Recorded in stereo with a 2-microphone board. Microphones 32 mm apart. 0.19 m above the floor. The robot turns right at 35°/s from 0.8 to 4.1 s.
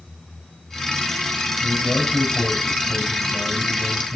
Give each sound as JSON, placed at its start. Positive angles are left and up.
{"t": 1.6, "sound": "a man speaking", "azimuth_deg": 100, "distance_m": 6.0}